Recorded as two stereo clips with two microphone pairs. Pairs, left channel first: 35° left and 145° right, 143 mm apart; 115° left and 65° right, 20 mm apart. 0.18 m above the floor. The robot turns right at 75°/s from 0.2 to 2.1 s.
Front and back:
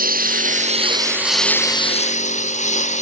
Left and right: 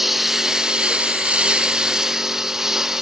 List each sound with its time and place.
0.0 s a lawn mower: 145° right; by 3.0 s straight ahead